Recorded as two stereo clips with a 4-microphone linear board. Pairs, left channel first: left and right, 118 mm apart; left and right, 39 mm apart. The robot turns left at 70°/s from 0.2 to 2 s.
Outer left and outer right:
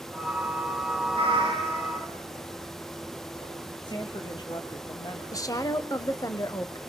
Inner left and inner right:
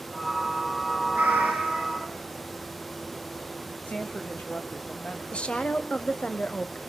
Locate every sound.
1.1 s a cat meowing: 120° right, 6 m; by 2.1 s straight behind, 6 m
3.8 s a woman speaking: 40° left (ahead or behind), 1.4 m
5.3 s a woman speaking: 30° left (ahead or behind), 1.1 m